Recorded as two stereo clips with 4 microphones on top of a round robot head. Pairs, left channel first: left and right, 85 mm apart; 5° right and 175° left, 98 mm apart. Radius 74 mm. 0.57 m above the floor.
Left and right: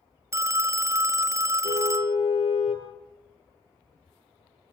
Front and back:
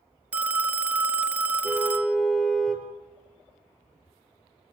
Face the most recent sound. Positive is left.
turn(degrees=85)